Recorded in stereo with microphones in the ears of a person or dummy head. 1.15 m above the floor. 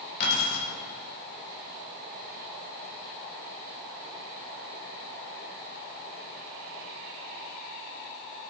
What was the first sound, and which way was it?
Keys jangling, 50° left (ahead or behind).